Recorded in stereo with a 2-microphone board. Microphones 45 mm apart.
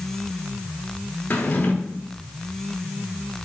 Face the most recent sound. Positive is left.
turn(degrees=45)  # may be behind; listen again after turning